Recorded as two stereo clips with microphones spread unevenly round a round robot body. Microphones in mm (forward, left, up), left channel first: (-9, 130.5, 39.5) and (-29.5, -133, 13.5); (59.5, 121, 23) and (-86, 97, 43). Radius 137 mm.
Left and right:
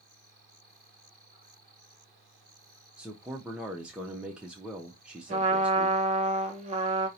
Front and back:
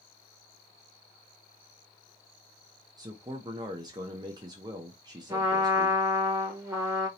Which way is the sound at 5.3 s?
100° right.